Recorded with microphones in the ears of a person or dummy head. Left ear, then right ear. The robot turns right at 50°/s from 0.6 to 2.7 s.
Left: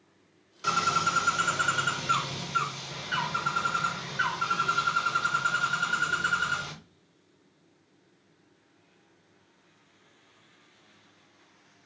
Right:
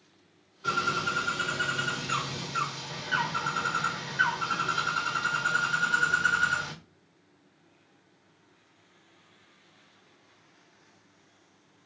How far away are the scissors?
I don't hear scissors.